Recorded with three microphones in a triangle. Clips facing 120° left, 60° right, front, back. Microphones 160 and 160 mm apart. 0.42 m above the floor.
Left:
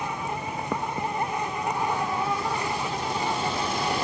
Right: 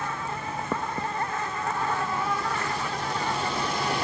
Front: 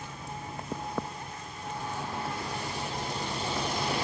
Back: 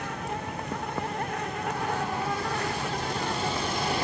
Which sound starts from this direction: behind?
An insect, at 0.0 s.